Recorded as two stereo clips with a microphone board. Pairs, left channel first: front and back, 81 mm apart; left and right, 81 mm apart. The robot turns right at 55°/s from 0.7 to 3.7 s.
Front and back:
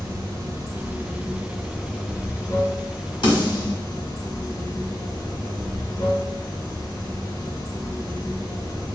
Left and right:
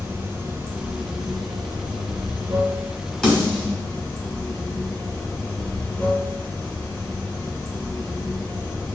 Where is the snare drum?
10° left, 1.9 m; by 3.8 s 35° left, 1.9 m.